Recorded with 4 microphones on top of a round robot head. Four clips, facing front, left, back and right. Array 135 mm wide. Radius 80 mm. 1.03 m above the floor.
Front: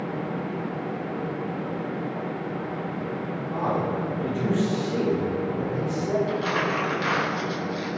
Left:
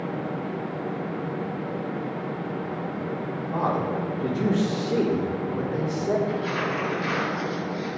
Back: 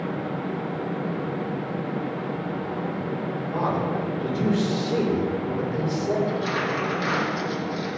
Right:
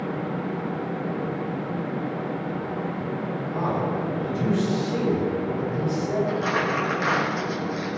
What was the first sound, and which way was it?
A man speaking, 105° left.